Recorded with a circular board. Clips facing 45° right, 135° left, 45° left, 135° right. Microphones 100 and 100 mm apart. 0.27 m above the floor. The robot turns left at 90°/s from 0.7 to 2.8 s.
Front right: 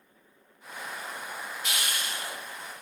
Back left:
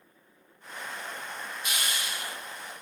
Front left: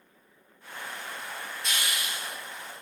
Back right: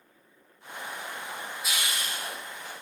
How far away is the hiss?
About 0.6 m.